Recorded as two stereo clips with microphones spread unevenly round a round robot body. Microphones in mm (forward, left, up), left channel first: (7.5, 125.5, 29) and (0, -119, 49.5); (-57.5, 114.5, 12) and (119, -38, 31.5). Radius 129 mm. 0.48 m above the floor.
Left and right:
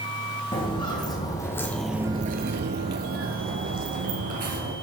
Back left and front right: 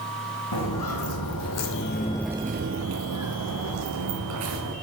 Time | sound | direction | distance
0.5 | footsteps | 160° left | 2 m